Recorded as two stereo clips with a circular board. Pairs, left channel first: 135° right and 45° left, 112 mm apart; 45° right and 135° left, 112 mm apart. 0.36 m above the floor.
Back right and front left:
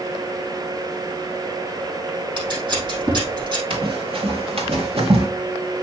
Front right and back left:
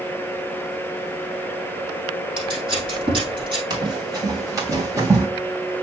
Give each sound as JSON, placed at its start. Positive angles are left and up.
{"t": 2.4, "sound": "scissors", "azimuth_deg": 90, "distance_m": 4.5}
{"t": 3.7, "sound": "running footsteps", "azimuth_deg": 80, "distance_m": 2.5}